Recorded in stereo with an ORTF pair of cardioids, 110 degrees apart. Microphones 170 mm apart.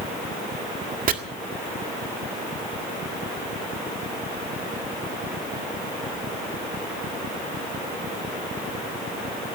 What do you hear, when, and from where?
1.1 s chopping: 55° right, 1.8 m